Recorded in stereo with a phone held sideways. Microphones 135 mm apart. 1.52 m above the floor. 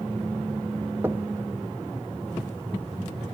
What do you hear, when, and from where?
1.0 s knocking: 15° right (ahead or behind), 0.6 m